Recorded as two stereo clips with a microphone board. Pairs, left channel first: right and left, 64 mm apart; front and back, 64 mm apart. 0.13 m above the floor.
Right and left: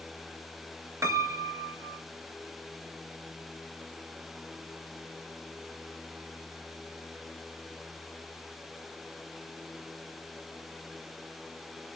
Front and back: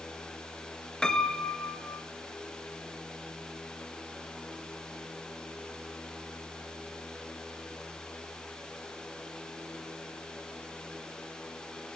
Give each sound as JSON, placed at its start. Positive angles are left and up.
{"t": 1.0, "sound": "a piano", "azimuth_deg": 75, "distance_m": 0.8}